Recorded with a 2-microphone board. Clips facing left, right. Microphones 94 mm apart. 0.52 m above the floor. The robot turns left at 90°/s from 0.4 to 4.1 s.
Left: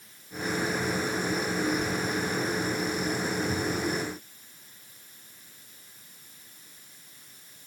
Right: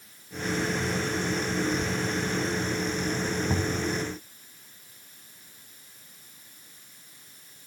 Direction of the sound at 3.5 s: 40° right.